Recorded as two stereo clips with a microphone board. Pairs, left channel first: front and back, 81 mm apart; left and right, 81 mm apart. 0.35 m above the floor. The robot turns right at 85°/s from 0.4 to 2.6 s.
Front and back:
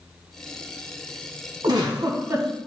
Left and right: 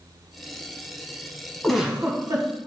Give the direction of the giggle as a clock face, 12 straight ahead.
6 o'clock.